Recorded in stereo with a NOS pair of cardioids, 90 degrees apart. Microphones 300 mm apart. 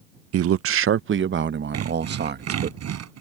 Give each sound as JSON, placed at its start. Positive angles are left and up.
{"t": 0.3, "sound": "a man speaking", "azimuth_deg": -55}
{"t": 1.7, "sound": "sawing", "azimuth_deg": -60}